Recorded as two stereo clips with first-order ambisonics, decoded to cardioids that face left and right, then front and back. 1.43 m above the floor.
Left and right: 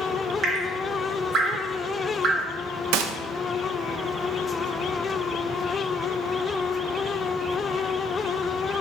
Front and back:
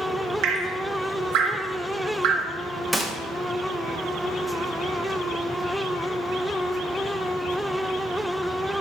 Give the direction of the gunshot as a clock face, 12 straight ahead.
3 o'clock.